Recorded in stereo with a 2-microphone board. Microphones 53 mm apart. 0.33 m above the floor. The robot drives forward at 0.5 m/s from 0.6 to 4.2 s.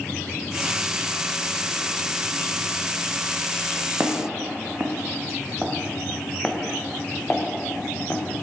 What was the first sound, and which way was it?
Footsteps, 35° right (ahead or behind).